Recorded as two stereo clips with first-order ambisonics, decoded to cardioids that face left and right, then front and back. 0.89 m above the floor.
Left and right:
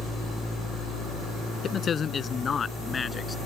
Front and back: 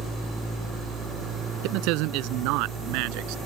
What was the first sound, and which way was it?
A man speaking, 155° left.